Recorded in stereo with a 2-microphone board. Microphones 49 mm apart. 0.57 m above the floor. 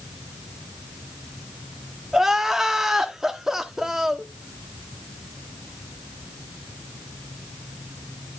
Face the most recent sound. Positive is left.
turn(degrees=-10)  # may be behind; listen again after turning